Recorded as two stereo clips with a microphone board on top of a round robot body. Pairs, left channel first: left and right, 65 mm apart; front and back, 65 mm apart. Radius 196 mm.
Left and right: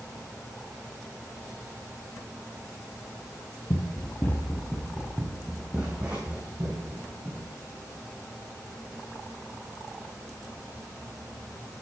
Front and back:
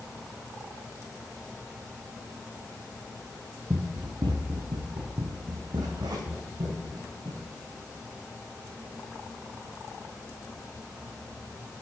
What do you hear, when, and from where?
3.7 s running footsteps: 130° left, 0.7 m; by 7.5 s 160° right, 2.5 m